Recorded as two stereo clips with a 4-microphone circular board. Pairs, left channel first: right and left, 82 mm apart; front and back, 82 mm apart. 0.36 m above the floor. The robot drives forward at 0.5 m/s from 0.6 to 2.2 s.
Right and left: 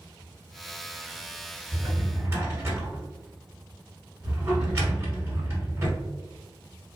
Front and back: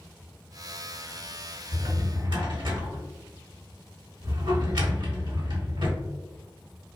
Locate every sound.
1.7 s a drawer: 140° left, 1.1 m; by 7.0 s 150° left, 1.3 m